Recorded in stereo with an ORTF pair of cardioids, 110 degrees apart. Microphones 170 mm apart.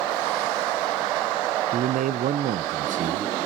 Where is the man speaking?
55° right, 0.9 m.